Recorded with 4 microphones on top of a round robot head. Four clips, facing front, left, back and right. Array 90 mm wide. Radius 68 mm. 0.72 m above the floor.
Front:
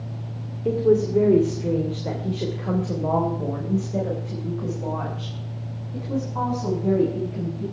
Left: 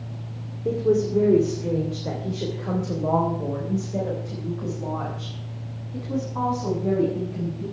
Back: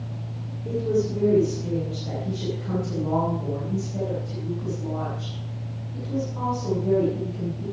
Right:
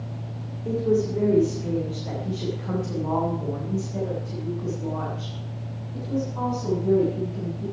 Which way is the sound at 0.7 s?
30° left.